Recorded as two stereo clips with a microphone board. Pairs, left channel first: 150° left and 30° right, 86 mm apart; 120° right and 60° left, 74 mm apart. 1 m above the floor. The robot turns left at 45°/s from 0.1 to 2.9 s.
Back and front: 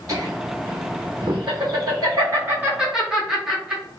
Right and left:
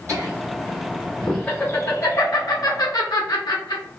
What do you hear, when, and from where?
0.1 s laughter: 15° left, 1.6 m; by 3.8 s 110° right, 1.6 m